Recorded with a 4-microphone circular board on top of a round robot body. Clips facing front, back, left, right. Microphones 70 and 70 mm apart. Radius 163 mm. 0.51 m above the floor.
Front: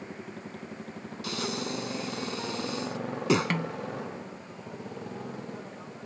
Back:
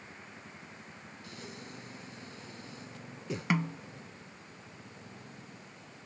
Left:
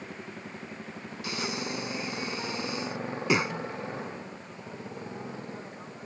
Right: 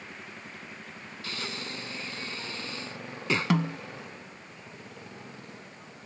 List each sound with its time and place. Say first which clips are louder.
0.0 s a motorcycle: front 9 dB, left 3 dB; 25° left
1.2 s breathing: front 15 dB, left 4 dB; 15° left
3.5 s a snare drum: front 1 dB, right 8 dB; 100° right